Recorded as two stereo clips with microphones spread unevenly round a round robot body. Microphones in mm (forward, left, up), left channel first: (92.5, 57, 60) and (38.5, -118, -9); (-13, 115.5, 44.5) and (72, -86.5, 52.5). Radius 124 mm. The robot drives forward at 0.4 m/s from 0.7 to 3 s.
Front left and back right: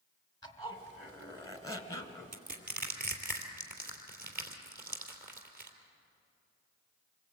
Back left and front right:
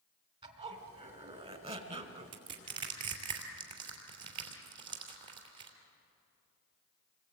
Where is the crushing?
65° right, 3.5 m; by 5.7 s 70° right, 3.5 m.